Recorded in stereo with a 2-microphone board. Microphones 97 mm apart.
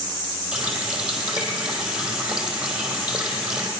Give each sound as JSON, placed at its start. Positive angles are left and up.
{"t": 0.5, "sound": "a running tap", "side_deg": -10, "distance_m": 2.5}